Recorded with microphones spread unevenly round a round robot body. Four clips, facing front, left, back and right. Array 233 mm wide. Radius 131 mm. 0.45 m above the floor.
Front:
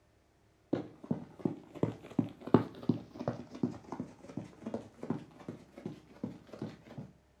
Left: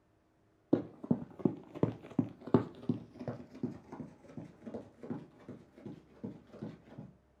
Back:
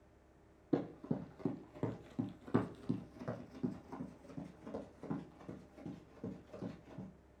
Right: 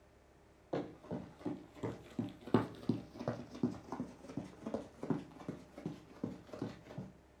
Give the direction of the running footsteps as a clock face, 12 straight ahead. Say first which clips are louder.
Left 9 dB, front 1 dB; 9 o'clock.